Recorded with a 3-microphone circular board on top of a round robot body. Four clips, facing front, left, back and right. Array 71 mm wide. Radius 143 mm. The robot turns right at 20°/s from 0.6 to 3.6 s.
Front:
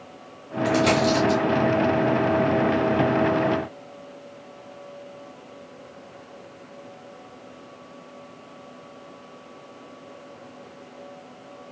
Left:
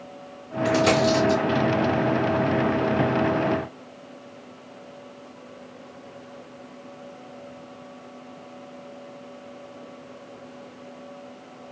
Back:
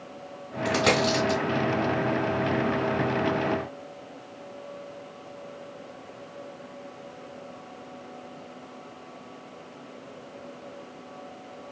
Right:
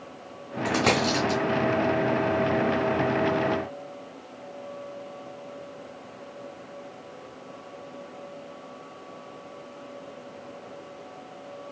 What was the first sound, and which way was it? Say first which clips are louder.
A dropped coin: left 4 dB, front 3 dB; 130° right.